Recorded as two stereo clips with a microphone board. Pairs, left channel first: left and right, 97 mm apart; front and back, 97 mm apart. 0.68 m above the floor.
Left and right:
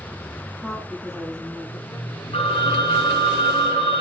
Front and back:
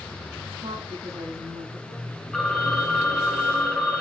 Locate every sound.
0.6 s a woman speaking: straight behind, 6 m; by 2.2 s 175° right, 5 m
2.3 s a phone ringing: 90° left, 3.5 m